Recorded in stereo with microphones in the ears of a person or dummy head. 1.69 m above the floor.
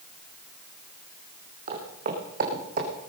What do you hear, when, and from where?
1.7 s footsteps: 40° right (ahead or behind), 4 m; by 2.9 s 50° right (ahead or behind), 4 m